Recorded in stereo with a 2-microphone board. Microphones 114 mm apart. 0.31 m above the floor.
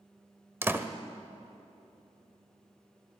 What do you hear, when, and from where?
0.6 s a door slam: 20° right (ahead or behind), 0.6 m